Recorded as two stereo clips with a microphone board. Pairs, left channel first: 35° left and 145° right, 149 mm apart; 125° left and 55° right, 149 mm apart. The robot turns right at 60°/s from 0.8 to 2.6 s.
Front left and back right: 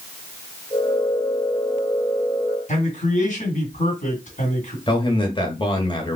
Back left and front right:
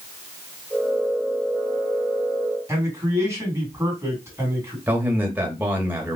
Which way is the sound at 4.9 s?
15° left.